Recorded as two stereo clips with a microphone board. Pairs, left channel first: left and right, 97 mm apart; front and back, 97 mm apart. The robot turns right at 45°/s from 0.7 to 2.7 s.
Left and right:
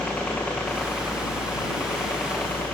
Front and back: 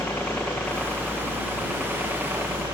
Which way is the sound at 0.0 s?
30° left.